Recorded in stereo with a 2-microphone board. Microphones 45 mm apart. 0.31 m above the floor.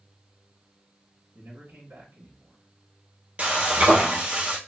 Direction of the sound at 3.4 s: 30° right (ahead or behind).